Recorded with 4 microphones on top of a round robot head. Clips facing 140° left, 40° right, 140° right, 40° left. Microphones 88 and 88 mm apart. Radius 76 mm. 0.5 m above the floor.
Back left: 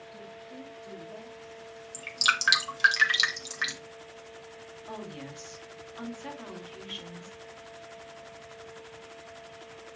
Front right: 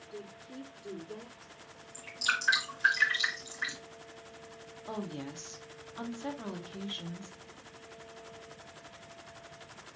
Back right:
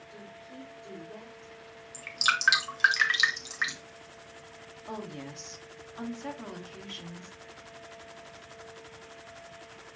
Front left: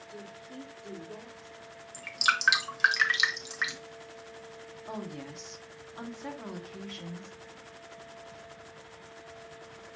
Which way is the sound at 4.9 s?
40° right.